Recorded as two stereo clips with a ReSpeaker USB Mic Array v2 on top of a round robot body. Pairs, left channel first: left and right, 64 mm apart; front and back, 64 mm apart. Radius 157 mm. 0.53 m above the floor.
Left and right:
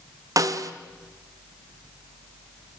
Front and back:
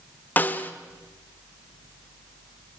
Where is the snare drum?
65° right, 1.5 m.